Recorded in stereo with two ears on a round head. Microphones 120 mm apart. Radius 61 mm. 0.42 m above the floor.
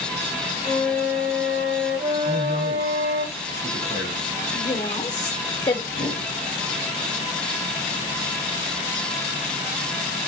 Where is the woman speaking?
25° left (ahead or behind), 0.8 m.